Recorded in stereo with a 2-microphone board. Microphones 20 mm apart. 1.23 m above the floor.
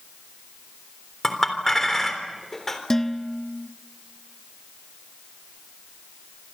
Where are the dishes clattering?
25° left (ahead or behind), 1.5 m.